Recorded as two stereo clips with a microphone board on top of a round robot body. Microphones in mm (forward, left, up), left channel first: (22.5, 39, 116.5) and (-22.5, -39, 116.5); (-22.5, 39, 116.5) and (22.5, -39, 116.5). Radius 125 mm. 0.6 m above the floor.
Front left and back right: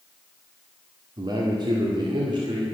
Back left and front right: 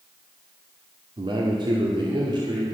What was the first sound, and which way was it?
A man speaking, 85° right.